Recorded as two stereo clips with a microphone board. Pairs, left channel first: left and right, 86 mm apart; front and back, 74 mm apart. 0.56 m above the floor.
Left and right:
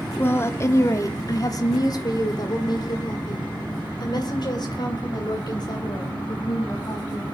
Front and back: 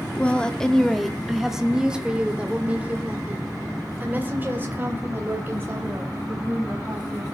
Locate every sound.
0.2 s a woman speaking: 55° left, 1.1 m; by 7.2 s 125° left, 4 m